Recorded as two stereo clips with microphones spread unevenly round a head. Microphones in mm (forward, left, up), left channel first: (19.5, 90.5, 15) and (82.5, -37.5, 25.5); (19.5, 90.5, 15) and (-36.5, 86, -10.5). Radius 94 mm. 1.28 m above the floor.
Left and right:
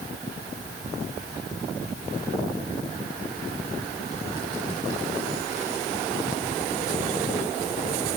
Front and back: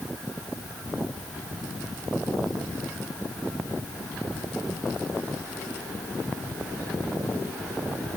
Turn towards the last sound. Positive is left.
No sound to turn to.